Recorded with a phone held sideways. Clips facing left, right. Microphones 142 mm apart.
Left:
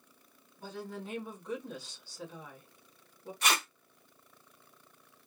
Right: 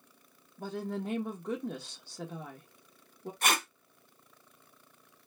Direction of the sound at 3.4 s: 45° right (ahead or behind).